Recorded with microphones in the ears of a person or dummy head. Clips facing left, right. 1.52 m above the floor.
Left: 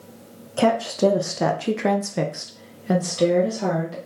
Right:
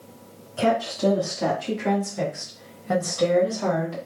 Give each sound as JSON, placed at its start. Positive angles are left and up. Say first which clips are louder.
{"t": 0.6, "sound": "a woman speaking", "louder": "left 3 dB", "side_deg": 55, "distance_m": 1.2}